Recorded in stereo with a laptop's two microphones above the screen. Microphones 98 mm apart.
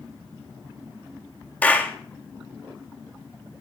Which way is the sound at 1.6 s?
15° left (ahead or behind).